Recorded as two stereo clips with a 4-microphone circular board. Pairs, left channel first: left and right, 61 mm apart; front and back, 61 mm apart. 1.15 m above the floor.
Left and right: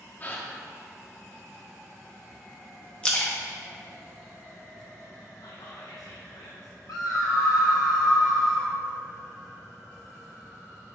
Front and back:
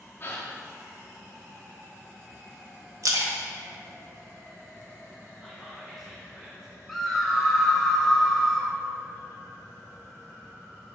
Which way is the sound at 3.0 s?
160° left.